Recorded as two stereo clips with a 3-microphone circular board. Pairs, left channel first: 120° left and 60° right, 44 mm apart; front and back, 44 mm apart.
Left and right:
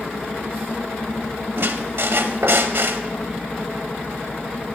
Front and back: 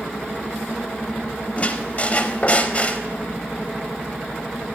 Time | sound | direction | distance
1.6 | a squeak | 50° right | 0.5 m